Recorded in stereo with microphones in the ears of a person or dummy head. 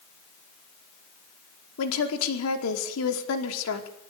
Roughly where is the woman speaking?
Left.